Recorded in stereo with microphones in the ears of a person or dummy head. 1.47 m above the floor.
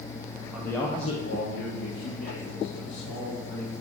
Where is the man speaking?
5° right (ahead or behind), 0.8 m; by 3.7 s 75° left (ahead or behind), 4 m.